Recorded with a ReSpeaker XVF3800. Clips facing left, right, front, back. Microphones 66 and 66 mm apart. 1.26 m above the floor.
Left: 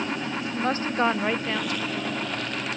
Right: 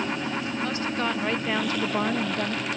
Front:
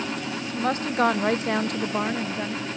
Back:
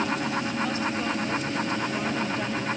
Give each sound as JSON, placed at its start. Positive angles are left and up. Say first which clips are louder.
{"t": 0.6, "sound": "a woman speaking", "louder": "left 7 dB, front 4 dB", "azimuth_deg": 40, "distance_m": 1.1}